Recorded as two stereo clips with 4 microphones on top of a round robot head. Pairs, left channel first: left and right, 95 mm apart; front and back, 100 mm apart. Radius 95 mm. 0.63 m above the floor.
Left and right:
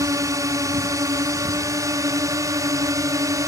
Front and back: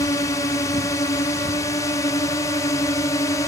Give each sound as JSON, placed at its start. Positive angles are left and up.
{"t": 0.0, "sound": "a drone", "azimuth_deg": -45}